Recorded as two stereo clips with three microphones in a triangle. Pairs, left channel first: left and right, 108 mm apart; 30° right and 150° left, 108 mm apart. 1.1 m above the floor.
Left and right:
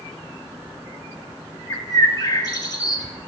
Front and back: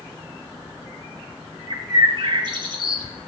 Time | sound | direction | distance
1.7 | a bird | 125° left | 1.4 m